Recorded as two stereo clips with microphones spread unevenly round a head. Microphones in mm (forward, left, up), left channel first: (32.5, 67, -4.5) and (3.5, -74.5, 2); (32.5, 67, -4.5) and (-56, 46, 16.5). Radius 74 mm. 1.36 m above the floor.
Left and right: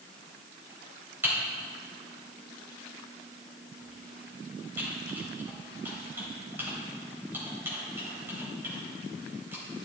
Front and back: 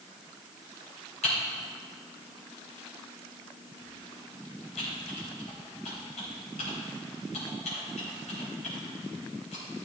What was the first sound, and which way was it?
Typing on a keyboard, 25° right.